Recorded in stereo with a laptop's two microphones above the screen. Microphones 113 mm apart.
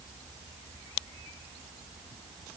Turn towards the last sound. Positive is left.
No sound to turn to.